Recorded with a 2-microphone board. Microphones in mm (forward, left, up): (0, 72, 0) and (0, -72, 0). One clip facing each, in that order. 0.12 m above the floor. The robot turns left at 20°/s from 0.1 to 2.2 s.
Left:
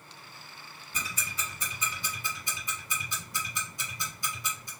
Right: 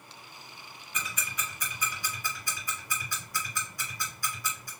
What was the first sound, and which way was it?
Ticking, 30° left (ahead or behind).